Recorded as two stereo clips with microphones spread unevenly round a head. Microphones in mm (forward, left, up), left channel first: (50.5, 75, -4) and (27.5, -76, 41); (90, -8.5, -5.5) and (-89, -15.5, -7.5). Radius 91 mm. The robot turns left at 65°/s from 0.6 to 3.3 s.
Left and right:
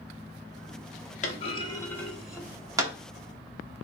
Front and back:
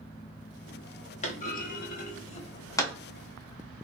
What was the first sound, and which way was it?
A clunk, 40° left.